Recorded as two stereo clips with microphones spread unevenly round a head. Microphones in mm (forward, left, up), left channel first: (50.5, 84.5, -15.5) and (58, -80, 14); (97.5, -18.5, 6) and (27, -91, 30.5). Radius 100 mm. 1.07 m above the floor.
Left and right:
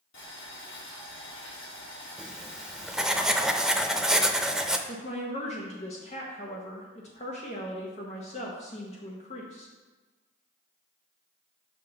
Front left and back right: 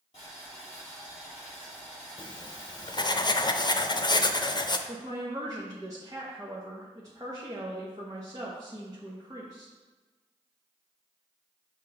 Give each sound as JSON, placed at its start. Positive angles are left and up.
{"t": 0.1, "sound": "boiling", "azimuth_deg": 105, "distance_m": 3.0}
{"t": 2.2, "sound": "writing", "azimuth_deg": 0, "distance_m": 0.6}
{"t": 4.9, "sound": "a woman speaking", "azimuth_deg": 150, "distance_m": 0.7}